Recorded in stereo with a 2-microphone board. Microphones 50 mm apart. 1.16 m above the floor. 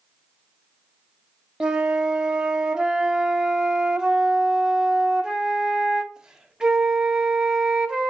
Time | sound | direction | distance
1.6 | a flute | 20° right (ahead or behind) | 0.5 m